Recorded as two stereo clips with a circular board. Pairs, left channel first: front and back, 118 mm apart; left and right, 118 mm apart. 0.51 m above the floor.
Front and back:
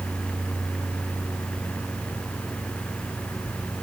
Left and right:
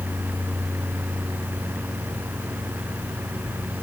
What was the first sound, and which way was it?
Only background noise.